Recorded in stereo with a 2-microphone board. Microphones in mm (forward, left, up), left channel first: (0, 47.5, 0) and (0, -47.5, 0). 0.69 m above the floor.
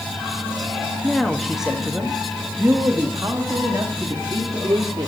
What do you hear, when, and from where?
1.0 s a woman speaking: 5° left (ahead or behind), 1.1 m; by 5.1 s 45° right (ahead or behind), 2 m